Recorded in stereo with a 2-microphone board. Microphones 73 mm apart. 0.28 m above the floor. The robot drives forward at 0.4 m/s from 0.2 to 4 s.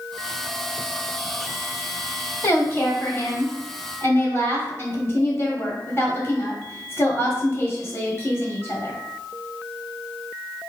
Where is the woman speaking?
35° left (ahead or behind), 1.4 m.